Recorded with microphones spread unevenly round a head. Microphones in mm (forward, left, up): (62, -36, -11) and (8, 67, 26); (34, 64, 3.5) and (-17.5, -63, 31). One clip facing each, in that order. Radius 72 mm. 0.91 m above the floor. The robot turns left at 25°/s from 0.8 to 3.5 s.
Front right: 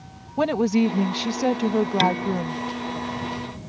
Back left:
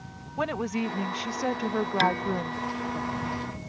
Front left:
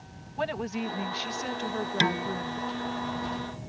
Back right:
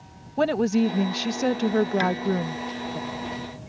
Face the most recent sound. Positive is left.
turn(degrees=-25)